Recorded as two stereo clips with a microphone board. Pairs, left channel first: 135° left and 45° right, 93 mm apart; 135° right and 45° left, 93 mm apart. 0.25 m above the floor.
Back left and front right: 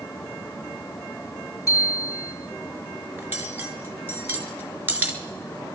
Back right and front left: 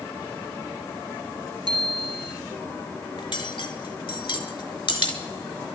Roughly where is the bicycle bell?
Left.